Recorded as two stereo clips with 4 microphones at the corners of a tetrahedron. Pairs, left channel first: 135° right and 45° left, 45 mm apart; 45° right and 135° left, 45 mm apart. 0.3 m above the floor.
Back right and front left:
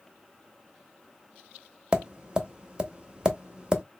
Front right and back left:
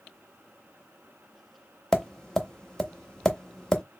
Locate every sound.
1.9 s tapping: 15° left, 0.7 m